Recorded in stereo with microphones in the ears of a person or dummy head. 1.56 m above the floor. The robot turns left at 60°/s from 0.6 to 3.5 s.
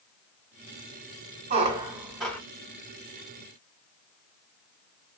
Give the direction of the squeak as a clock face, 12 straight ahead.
5 o'clock.